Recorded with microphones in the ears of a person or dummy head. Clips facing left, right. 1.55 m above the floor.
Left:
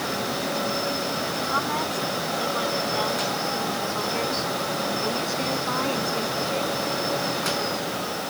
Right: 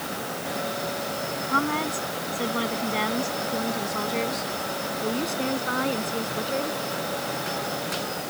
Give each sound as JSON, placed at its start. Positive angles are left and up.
{"t": 1.5, "sound": "a woman speaking", "side_deg": -35}